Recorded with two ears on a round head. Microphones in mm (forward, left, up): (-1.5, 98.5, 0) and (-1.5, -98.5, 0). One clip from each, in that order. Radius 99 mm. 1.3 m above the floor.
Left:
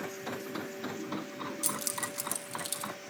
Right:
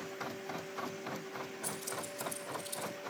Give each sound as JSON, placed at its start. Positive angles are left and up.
{"t": 1.6, "sound": "keys jangling", "side_deg": 75, "distance_m": 1.4}